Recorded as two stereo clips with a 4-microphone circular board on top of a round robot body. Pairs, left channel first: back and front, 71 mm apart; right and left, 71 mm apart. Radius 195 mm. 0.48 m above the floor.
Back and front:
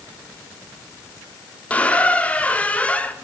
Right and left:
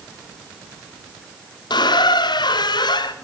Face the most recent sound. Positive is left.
turn(degrees=-105)